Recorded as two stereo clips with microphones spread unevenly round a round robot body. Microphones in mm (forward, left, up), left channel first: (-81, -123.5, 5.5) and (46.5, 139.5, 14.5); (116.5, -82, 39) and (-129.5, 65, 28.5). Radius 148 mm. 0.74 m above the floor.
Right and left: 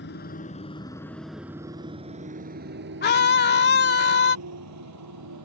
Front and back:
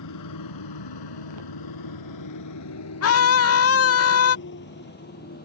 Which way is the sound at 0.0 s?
60° right.